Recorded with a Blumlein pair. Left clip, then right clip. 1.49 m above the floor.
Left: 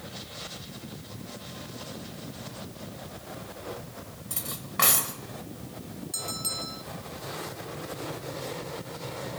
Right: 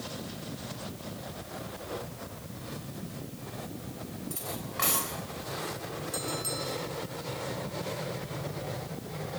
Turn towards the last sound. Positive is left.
turn(degrees=15)